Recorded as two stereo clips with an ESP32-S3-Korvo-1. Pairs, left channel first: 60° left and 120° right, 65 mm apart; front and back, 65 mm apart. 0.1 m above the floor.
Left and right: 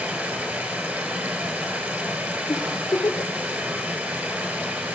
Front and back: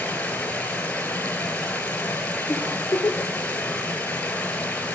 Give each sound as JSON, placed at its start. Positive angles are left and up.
{"t": 0.0, "sound": "running water", "azimuth_deg": -65, "distance_m": 1.0}
{"t": 2.5, "sound": "a giggle", "azimuth_deg": 45, "distance_m": 0.8}